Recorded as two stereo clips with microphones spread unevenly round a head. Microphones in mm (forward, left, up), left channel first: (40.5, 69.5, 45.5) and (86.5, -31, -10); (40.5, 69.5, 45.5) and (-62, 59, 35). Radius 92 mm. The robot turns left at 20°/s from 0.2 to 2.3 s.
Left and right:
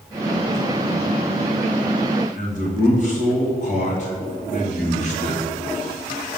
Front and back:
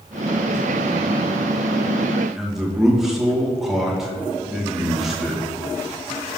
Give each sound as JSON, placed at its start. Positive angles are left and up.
{"t": 2.4, "sound": "a man speaking", "azimuth_deg": 100, "distance_m": 2.0}